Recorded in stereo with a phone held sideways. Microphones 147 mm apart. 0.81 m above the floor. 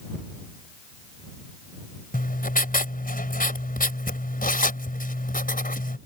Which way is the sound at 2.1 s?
70° left (ahead or behind).